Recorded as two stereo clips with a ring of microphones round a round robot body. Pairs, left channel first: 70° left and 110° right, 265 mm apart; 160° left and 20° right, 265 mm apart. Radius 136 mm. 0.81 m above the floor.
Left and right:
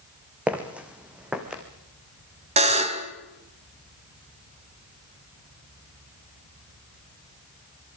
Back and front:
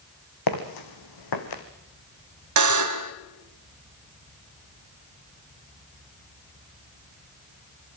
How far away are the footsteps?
About 2.5 m.